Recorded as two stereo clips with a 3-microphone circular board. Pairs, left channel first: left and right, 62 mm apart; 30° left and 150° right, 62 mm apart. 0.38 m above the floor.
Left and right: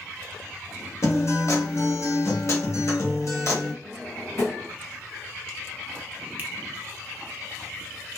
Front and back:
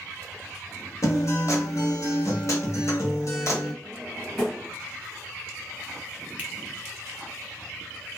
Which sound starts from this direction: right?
A finger snap, at 6.4 s.